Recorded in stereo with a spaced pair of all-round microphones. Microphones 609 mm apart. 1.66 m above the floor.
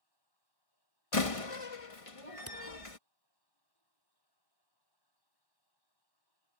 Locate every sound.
0.0 s running water: 40° left (ahead or behind)
1.1 s a door slam: 60° left (ahead or behind)
2.5 s a camera shutter: 20° right (ahead or behind)